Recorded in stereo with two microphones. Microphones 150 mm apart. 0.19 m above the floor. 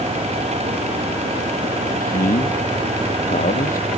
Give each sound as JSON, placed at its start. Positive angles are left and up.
{"t": 1.9, "sound": "a man speaking", "side_deg": 70}